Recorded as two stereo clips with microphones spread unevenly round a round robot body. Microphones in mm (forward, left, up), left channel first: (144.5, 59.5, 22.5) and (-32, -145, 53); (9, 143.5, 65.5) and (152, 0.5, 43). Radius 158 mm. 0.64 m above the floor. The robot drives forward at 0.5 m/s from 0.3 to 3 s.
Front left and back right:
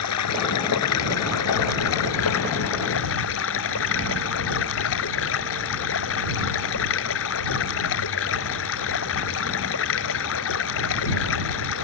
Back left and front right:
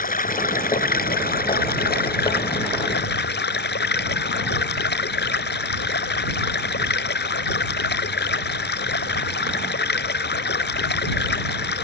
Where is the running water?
90° left; by 11.8 s 100° left.